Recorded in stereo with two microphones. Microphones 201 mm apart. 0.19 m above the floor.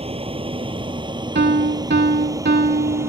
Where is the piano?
60° right (ahead or behind).